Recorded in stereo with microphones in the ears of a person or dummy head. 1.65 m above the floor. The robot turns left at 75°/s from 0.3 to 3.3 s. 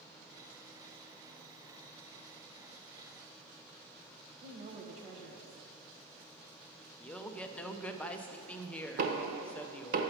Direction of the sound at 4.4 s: 35° right (ahead or behind).